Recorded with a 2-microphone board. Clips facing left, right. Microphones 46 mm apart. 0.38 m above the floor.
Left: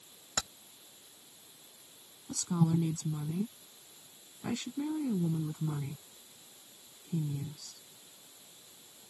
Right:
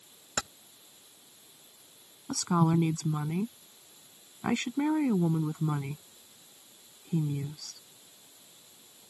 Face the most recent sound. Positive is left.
turn(degrees=-70)  # may be behind; listen again after turning